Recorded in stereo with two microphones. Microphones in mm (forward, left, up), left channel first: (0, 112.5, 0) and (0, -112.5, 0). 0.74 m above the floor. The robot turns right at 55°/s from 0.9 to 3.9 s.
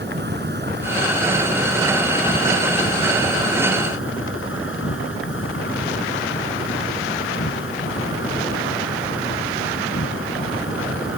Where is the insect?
50° right; by 11.2 s 115° left.